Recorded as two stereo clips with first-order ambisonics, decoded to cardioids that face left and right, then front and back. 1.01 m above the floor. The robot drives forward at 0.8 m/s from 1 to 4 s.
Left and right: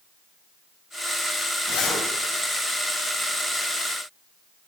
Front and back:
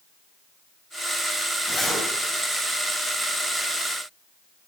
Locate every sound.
1.7 s a zipper: 80° left, 5.5 m